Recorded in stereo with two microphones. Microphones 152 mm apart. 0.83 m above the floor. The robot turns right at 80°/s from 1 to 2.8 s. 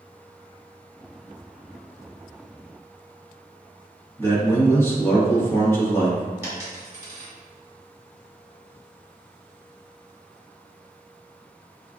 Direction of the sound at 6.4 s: 15° right (ahead or behind).